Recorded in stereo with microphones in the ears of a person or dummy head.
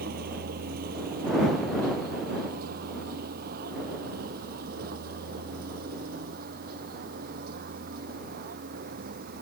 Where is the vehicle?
50° right (ahead or behind).